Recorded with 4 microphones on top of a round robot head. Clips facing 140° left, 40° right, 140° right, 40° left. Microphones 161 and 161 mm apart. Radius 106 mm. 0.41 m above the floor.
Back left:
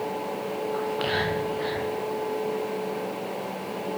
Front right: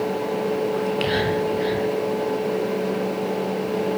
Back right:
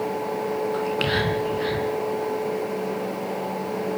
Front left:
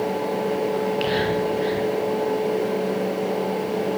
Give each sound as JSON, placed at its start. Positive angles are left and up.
{"t": 0.7, "sound": "whispering", "azimuth_deg": -110, "distance_m": 4.5}